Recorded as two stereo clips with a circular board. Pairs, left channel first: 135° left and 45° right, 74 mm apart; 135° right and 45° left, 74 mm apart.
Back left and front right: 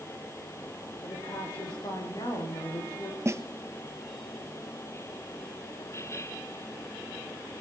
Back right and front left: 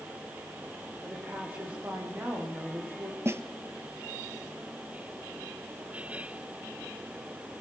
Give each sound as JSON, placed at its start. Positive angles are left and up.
{"t": 1.0, "sound": "a woman speaking", "azimuth_deg": 110, "distance_m": 9.5}
{"t": 3.2, "sound": "a snare drum", "azimuth_deg": 0, "distance_m": 1.1}